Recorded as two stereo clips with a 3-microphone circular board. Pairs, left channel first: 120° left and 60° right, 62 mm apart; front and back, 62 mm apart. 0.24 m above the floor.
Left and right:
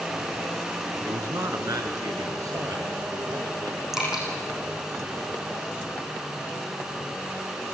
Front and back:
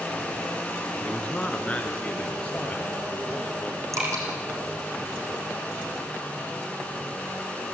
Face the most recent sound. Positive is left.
turn(degrees=-145)